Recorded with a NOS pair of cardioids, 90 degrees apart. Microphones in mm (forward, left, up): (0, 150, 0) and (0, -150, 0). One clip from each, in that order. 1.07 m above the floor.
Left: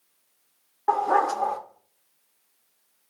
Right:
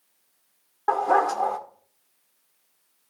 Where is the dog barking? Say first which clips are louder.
Right 1 dB; straight ahead, 1.3 m.